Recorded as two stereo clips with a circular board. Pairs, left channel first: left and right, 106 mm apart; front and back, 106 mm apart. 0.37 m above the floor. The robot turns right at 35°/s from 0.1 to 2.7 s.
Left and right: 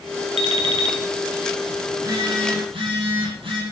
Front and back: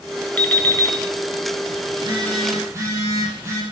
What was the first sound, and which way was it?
An alarm clock, 75° right.